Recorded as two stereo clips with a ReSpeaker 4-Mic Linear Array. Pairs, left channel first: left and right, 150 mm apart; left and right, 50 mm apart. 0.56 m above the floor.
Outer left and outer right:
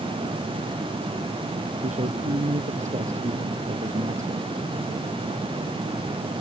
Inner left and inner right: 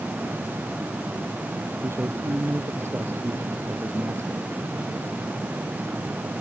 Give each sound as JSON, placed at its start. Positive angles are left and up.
{"t": 1.8, "sound": "a man speaking", "side_deg": -55}